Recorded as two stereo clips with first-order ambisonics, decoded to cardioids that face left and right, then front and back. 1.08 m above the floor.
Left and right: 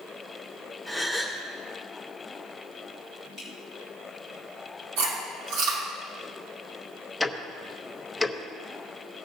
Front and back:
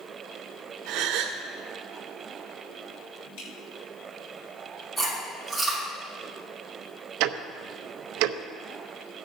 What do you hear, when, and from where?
0.9 s a gasp: straight behind, 1.4 m
3.4 s dripping: 15° right, 4.5 m
5.0 s chewing: 80° right, 5.5 m
7.2 s ticking: straight behind, 0.7 m